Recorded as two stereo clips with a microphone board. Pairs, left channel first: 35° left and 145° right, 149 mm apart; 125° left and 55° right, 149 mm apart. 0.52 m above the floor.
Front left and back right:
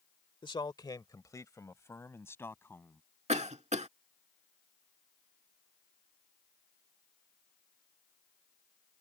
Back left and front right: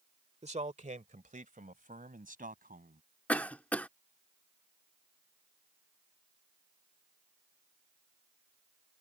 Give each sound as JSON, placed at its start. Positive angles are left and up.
{"t": 0.4, "sound": "a man speaking", "azimuth_deg": -20}
{"t": 3.3, "sound": "a cough", "azimuth_deg": -160}